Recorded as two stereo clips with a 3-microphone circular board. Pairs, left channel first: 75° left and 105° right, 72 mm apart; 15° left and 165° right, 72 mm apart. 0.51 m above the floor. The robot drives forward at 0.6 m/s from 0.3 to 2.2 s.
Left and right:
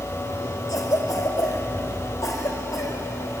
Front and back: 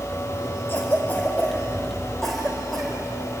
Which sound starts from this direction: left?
A cough, at 0.7 s.